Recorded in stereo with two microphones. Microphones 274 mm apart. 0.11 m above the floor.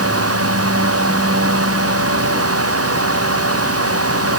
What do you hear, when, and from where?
Only background noise.